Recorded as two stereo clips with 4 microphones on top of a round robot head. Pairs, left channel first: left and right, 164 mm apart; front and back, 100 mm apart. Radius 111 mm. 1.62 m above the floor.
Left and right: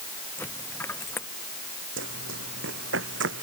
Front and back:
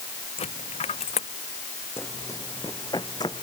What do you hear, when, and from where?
0.4 s a dropped coin: 10° left
2.0 s running footsteps: 80° right; by 3.4 s 70° right